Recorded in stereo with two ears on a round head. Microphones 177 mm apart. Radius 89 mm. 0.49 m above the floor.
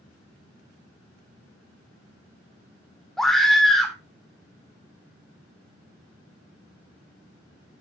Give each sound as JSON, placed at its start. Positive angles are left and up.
{"t": 3.2, "sound": "a scream", "side_deg": 0, "distance_m": 1.4}